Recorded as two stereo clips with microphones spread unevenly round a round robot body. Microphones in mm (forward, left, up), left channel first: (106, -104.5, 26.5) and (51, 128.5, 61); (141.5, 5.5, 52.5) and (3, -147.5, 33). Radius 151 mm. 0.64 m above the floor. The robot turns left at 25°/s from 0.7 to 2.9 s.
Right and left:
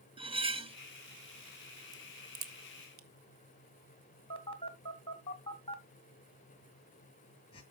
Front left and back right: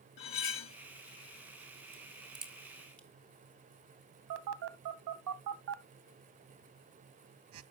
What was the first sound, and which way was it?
Cutlery clinking, 35° left.